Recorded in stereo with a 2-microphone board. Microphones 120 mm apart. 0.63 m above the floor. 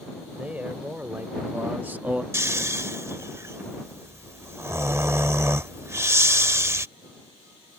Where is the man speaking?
15° right (ahead or behind); by 2.2 s 10° right (ahead or behind).